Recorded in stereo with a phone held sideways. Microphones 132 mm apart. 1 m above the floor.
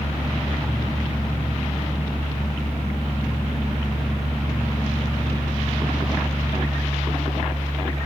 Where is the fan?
30° right (ahead or behind), 0.7 m.